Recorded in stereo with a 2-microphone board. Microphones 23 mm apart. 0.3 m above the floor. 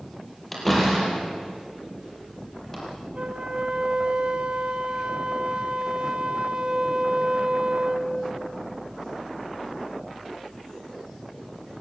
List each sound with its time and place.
0.5 s a door slam: 10° left (ahead or behind), 7 m
3.1 s a flute: 45° right (ahead or behind), 1.5 m